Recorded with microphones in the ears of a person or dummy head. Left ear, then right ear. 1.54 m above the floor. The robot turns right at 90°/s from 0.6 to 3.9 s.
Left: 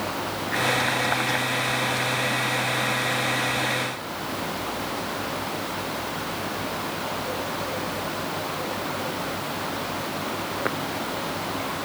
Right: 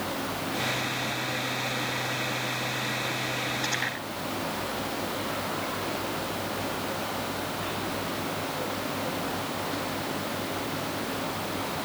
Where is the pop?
I don't hear a pop.